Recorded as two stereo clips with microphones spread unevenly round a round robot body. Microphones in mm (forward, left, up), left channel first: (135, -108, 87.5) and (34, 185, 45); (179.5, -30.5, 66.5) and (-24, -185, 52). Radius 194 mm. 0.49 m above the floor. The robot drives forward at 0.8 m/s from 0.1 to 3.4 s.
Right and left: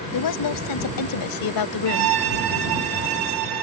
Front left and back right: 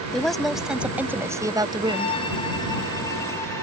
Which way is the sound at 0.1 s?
50° right.